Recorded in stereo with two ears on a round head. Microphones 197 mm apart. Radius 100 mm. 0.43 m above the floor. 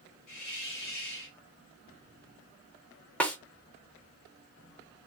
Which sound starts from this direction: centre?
A snare drum, at 3.2 s.